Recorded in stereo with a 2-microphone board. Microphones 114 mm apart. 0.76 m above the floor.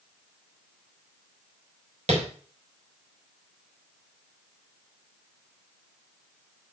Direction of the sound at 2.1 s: 65° right (ahead or behind).